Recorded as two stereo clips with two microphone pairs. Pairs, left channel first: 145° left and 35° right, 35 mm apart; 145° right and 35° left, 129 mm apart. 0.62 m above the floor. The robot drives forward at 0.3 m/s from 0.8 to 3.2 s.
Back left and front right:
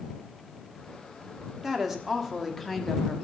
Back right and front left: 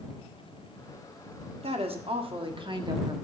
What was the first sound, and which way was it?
A woman speaking, 40° left.